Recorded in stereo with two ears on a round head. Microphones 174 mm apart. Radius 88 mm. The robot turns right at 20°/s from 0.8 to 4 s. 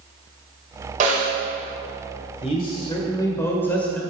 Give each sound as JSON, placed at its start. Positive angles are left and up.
{"t": 1.0, "sound": "a snare drum", "side_deg": -40, "distance_m": 2.0}
{"t": 2.4, "sound": "a man speaking", "azimuth_deg": 140, "distance_m": 1.5}